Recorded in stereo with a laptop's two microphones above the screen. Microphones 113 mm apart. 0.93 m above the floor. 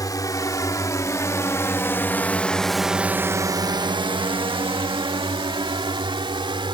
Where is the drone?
35° left (ahead or behind); by 6.8 s 45° right (ahead or behind).